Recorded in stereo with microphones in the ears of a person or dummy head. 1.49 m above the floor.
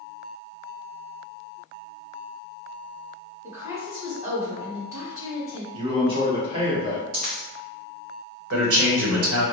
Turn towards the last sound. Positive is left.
turn(degrees=-70)  # may be behind; listen again after turning